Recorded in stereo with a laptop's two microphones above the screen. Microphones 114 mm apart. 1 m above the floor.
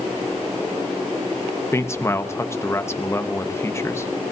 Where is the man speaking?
20° left (ahead or behind), 0.8 m.